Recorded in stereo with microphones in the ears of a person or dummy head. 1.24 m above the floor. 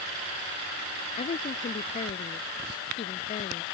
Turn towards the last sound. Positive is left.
turn(degrees=45)  # may be behind; listen again after turning